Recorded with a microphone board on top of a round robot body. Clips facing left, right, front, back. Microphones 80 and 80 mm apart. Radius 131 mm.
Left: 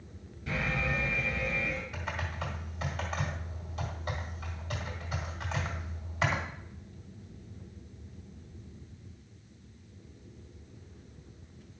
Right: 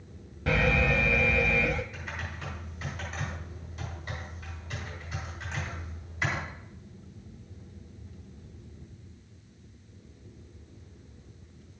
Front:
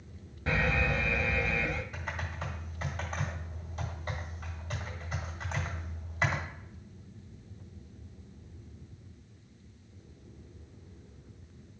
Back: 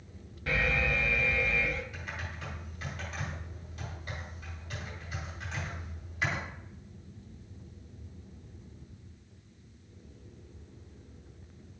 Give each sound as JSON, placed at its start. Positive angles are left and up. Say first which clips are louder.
{"t": 0.5, "sound": "an alarm", "louder": "right 7 dB, even", "azimuth_deg": -65, "distance_m": 0.8}
{"t": 1.9, "sound": "typing on a keyboard", "louder": "left 2 dB, front 3 dB", "azimuth_deg": 55, "distance_m": 1.9}